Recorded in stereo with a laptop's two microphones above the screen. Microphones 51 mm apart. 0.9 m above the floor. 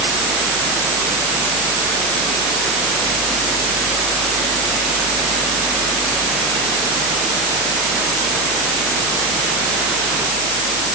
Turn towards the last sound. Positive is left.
No sound to turn to.